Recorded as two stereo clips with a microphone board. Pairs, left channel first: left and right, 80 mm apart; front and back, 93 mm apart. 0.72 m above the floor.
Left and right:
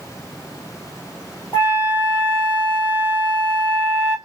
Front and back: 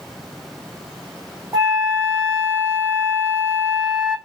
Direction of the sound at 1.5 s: 145° left.